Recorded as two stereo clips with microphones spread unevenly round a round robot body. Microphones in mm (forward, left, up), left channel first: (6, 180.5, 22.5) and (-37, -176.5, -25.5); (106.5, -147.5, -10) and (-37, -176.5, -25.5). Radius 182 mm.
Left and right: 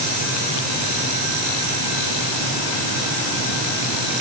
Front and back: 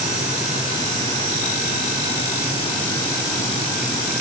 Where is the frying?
I don't hear frying.